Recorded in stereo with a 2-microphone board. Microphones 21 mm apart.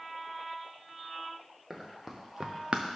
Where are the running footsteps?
10° right (ahead or behind), 2.5 m; by 3.0 s 70° right (ahead or behind), 0.9 m.